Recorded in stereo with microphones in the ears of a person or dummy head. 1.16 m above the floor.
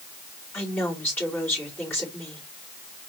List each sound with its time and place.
0.5 s a woman speaking: 10° left (ahead or behind), 3 m